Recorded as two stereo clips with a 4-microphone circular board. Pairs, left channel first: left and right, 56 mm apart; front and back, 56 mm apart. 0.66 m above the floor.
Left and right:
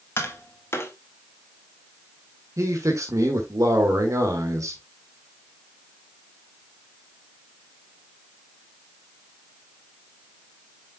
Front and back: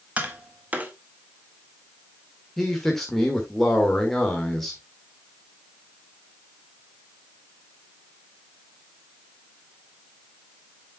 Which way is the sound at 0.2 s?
125° left.